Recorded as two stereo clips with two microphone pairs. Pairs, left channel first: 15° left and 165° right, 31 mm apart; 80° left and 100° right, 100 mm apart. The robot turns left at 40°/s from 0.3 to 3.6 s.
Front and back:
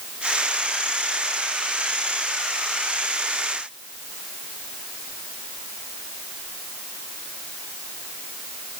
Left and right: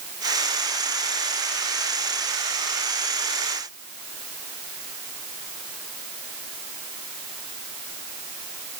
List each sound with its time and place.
Only background noise.